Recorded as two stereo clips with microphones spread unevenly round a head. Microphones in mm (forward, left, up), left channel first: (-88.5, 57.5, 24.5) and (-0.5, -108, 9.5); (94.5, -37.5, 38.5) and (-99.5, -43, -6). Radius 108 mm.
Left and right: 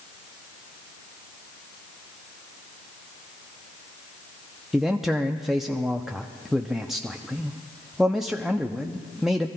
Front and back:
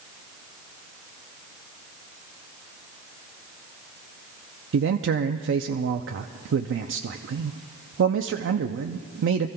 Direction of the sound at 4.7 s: 150° right.